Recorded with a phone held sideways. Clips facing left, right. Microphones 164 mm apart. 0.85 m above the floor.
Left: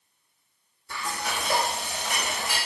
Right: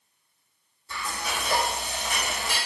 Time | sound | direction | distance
0.9 | frying | 55° left (ahead or behind) | 1.7 m